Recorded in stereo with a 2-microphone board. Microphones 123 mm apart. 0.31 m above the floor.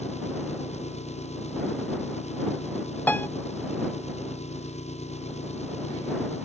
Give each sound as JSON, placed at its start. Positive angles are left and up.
{"t": 0.0, "sound": "an engine running", "side_deg": 65}
{"t": 3.1, "sound": "a piano", "side_deg": 15}